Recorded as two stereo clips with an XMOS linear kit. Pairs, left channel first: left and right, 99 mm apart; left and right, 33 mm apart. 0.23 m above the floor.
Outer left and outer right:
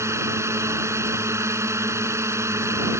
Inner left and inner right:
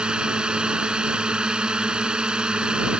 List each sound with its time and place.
0.0 s a drone: 25° right (ahead or behind)